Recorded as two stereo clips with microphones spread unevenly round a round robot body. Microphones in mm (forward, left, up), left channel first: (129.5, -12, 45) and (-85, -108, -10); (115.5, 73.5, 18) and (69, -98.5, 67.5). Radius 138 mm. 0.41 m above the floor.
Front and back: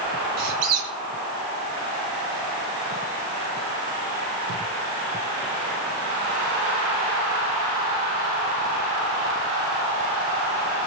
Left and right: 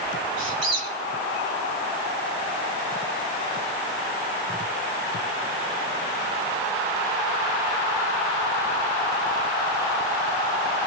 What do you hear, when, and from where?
0.4 s a squeak: 155° right, 2.5 m